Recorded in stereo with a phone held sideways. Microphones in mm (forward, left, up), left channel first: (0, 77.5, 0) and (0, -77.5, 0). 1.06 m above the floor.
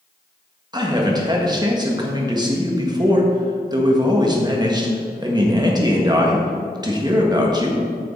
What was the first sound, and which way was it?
A man speaking, 25° right (ahead or behind).